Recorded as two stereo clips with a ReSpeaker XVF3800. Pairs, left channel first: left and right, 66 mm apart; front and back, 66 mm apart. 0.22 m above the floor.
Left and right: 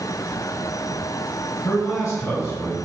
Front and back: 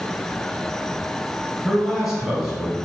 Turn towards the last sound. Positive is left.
turn(degrees=90)